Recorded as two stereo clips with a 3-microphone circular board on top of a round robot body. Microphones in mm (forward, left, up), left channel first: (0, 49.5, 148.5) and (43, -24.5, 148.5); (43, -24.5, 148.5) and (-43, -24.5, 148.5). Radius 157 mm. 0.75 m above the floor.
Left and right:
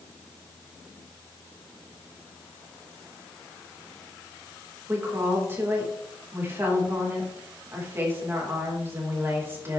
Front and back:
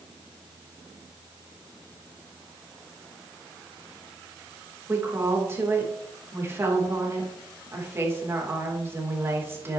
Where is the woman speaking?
120° right, 3.5 m.